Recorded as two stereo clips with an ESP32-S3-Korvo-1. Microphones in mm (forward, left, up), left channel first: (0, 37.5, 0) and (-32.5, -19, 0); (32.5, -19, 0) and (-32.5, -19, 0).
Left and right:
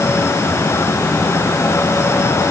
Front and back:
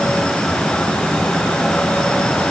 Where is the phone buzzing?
I don't hear a phone buzzing.